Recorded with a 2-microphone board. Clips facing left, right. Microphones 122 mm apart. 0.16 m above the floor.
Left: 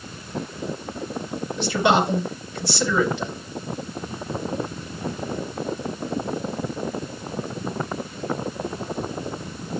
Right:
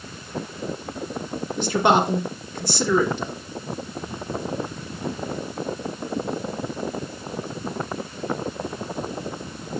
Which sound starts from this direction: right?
A man speaking, at 1.6 s.